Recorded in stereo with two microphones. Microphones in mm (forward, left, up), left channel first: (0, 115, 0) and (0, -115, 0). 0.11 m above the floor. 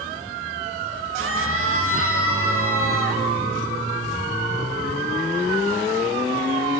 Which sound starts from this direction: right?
A scream, at 1.2 s.